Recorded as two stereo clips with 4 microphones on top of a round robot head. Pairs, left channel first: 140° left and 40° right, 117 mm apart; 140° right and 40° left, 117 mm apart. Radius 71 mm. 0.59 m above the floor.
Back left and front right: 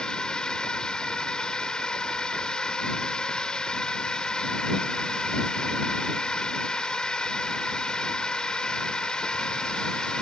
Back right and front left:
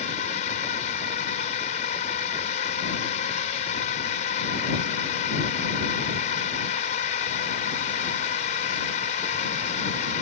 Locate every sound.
0.0 s a drone: 140° right